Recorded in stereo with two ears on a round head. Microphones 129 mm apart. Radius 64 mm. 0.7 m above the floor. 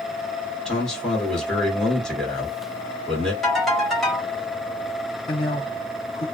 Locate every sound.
0.7 s a man speaking: 5° left (ahead or behind), 1.8 m
3.4 s a ringtone: 5° left (ahead or behind), 2 m
5.3 s a man speaking: 35° left (ahead or behind), 0.9 m